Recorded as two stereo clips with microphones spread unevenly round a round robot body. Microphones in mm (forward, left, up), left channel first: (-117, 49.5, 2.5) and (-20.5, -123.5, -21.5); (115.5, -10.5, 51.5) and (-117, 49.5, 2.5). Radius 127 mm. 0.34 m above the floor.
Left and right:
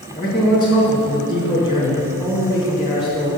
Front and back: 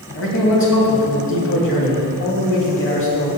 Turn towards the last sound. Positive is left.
turn(degrees=25)